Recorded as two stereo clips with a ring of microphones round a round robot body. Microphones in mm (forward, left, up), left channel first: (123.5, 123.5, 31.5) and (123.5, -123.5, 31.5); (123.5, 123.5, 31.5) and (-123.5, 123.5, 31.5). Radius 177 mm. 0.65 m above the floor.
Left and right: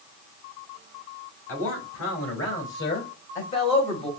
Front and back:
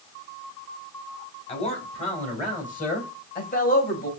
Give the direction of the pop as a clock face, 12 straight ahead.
No pop in this recording.